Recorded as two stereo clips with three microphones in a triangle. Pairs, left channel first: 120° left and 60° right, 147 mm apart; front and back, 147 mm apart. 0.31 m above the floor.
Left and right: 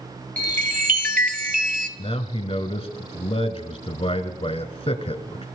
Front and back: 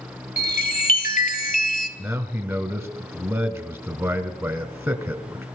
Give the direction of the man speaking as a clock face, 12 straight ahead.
8 o'clock.